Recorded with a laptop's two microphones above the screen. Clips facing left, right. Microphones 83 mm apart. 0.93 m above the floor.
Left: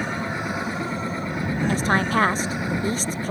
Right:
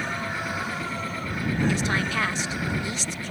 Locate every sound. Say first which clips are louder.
0.0 s a machine running: left 3 dB; 25° left (ahead or behind)
1.7 s a woman speaking: left 5 dB; 40° left (ahead or behind)